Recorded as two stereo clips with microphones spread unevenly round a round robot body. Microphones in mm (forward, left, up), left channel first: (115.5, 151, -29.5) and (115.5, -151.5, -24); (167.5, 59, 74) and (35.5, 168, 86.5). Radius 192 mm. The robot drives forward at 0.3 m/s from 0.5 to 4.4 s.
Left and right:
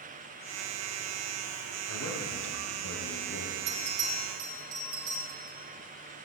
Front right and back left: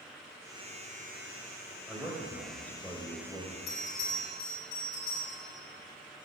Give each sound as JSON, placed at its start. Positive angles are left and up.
{"t": 1.9, "sound": "a man speaking", "azimuth_deg": 50, "distance_m": 3.5}
{"t": 3.7, "sound": "a bell", "azimuth_deg": -90, "distance_m": 4.0}